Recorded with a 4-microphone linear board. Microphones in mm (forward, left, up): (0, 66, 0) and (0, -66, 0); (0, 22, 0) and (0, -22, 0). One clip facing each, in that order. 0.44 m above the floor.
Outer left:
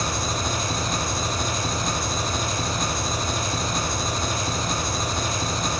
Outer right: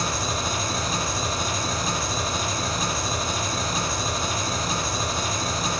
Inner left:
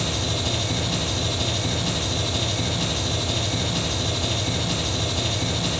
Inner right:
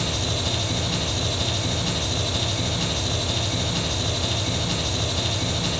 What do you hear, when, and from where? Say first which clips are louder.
0.0 s an engine running: even, even; centre (ahead or behind), 0.8 m